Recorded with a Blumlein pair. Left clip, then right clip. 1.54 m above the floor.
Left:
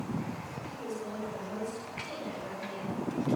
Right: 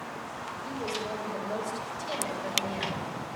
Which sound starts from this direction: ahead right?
A woman speaking, at 0.6 s.